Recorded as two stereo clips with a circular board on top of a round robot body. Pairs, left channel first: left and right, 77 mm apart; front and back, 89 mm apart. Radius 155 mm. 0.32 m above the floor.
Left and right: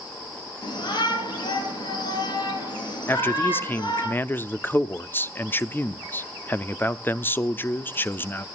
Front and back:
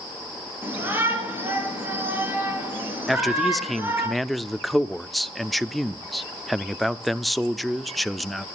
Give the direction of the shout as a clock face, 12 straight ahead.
8 o'clock.